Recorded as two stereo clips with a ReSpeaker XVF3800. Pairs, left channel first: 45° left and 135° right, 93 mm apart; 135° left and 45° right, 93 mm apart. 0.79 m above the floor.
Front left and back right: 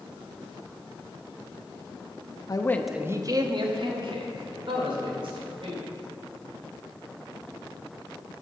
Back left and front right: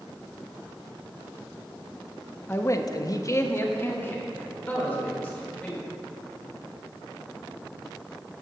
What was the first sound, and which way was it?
A man speaking, 75° left.